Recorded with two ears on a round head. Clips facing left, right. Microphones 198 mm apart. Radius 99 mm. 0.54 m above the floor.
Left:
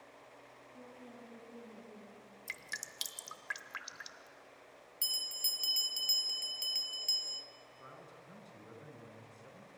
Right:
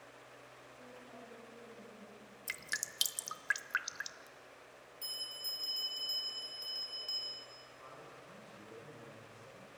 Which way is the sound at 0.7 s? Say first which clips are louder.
Left 2 dB; 70° left (ahead or behind).